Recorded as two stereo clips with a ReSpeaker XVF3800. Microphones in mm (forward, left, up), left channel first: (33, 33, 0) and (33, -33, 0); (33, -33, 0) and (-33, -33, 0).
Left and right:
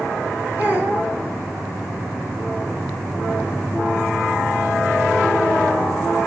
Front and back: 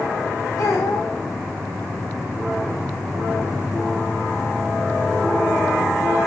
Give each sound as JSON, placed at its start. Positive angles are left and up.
{"t": 0.6, "sound": "a child speaking", "azimuth_deg": -30, "distance_m": 5.0}